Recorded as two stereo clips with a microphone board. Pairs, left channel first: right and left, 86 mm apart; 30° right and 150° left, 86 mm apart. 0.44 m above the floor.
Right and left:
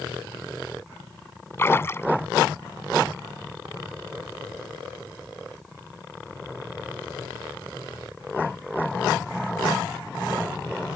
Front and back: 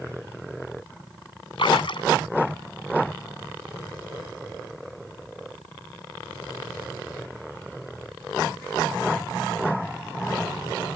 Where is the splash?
30° right.